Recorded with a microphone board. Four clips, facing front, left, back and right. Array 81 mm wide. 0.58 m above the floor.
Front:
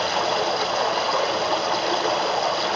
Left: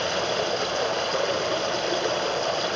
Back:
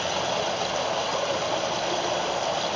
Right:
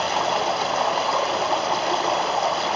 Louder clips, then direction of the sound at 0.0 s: Right 4 dB, front 4 dB; 65° right.